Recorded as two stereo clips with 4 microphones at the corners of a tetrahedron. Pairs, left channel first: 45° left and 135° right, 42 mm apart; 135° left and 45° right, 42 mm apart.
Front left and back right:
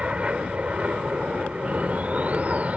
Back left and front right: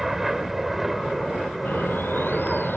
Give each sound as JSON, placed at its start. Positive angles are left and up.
{"t": 0.0, "sound": "an aircraft", "azimuth_deg": -120}
{"t": 1.6, "sound": "a bird", "azimuth_deg": 170}